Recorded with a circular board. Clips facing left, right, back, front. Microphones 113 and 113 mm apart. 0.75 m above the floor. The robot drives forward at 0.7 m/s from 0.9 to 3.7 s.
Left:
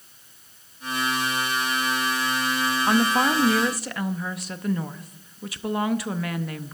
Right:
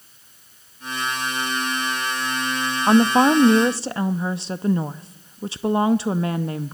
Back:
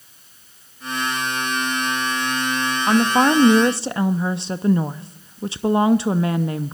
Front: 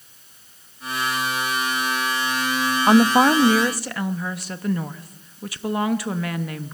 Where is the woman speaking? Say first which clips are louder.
Right 7 dB, front 2 dB; 50° right, 0.7 m; by 6.8 s 135° right, 0.7 m.